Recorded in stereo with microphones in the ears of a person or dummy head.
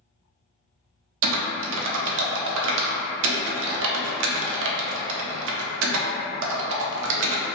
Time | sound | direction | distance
1.2 | typing on a keyboard | 75° right (ahead or behind) | 0.5 m